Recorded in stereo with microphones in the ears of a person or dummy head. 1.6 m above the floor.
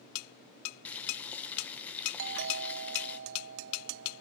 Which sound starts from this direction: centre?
Boiling, at 0.8 s.